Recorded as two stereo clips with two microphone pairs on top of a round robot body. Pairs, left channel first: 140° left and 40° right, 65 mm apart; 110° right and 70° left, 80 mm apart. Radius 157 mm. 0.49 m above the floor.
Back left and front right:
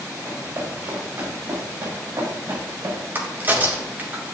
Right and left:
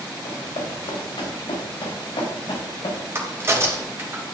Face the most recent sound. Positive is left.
turn(degrees=15)